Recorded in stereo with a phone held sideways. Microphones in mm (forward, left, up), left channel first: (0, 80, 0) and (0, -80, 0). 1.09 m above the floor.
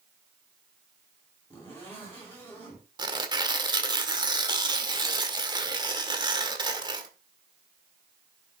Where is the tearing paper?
25° right (ahead or behind), 1.6 m.